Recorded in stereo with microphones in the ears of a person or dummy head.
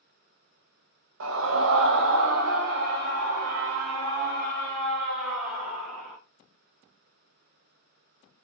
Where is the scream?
80° right, 0.8 m; by 6.2 s 50° right (ahead or behind), 3 m.